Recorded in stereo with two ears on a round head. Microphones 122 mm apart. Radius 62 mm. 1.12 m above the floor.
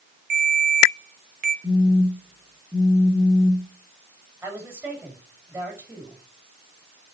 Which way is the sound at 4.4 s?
20° right (ahead or behind).